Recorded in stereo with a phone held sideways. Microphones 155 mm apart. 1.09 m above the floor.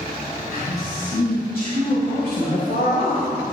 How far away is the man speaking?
About 7 m.